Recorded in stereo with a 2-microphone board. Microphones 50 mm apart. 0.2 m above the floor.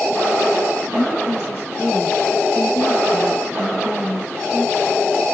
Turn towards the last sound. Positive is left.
turn(degrees=50)  # may be behind; listen again after turning